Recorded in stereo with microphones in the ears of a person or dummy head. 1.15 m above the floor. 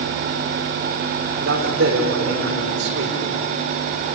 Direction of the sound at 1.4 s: 75° right (ahead or behind).